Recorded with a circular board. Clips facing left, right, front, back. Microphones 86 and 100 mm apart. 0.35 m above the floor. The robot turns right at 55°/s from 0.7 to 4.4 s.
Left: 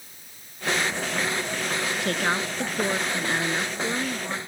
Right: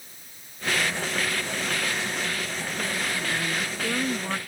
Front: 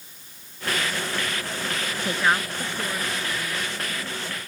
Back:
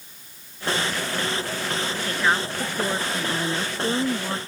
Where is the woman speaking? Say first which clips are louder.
Left 5 dB, front 1 dB; 70° left; by 4.4 s 160° right.